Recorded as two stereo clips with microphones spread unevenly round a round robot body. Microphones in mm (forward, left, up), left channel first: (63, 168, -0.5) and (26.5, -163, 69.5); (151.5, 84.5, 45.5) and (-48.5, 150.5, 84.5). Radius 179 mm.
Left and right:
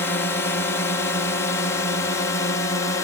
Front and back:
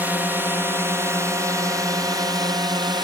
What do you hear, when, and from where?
0.0 s a drone: 65° left; by 3.0 s 100° left